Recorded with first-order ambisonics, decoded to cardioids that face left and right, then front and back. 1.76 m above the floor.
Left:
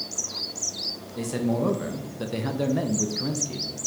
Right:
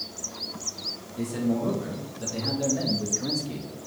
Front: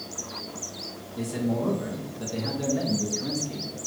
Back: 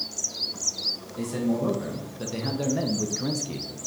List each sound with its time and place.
1.1 s a man speaking: 100° left, 1.6 m; by 3.7 s 170° right, 0.7 m